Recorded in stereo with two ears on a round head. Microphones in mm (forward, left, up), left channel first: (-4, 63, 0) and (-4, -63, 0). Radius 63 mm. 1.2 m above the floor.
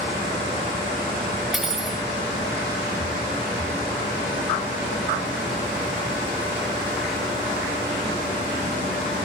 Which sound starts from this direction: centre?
Cutlery clinking, at 1.5 s.